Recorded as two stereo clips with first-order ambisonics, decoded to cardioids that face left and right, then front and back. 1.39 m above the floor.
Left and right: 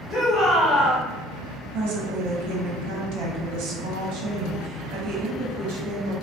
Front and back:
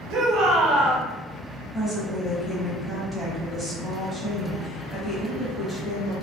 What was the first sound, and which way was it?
A shout, 165° left.